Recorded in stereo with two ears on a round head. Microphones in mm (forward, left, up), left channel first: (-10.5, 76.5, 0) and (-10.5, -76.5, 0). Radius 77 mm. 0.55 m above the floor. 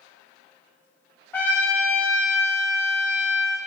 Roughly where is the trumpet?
Centre.